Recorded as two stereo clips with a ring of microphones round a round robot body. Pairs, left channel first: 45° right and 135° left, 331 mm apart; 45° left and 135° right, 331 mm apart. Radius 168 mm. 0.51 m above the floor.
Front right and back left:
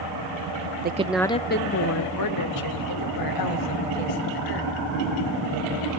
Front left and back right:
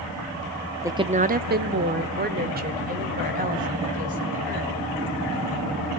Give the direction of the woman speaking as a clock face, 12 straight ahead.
7 o'clock.